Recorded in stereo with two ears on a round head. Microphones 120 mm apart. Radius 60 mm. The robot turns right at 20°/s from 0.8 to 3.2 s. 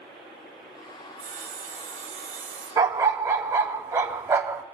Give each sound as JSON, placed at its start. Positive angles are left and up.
{"t": 1.2, "sound": "sawing", "azimuth_deg": -80, "distance_m": 1.1}
{"t": 2.8, "sound": "a dog barking", "side_deg": -25, "distance_m": 0.7}